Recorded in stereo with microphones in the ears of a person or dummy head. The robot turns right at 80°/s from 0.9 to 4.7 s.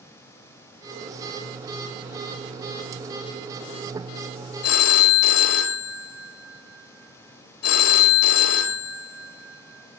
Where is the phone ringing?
75° left (ahead or behind), 2 m; by 10.0 s 70° left (ahead or behind), 2 m.